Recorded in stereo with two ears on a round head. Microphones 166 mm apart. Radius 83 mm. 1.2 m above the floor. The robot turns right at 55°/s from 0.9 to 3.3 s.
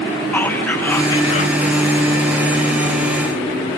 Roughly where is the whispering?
Ahead.